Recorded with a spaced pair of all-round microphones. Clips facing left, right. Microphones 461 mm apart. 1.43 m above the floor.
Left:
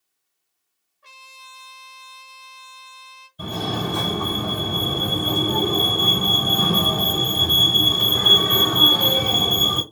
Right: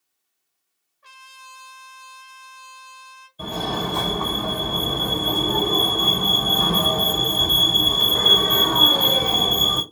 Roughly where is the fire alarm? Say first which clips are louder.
Left 1 dB; left.